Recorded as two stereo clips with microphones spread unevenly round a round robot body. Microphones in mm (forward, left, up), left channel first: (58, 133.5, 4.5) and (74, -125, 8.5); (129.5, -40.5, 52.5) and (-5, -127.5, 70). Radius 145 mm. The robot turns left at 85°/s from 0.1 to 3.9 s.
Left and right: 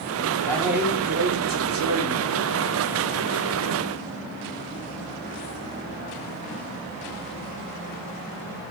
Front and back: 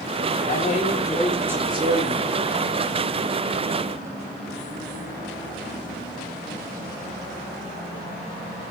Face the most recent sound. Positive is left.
turn(degrees=85)